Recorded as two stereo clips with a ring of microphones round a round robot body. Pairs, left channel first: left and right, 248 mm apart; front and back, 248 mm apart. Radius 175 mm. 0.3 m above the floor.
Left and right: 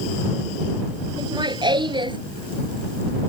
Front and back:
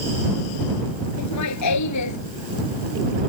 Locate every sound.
1.2 s laughter: 20° right